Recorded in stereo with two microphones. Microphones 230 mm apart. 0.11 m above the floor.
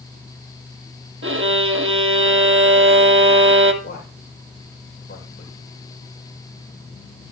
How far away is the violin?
About 0.8 m.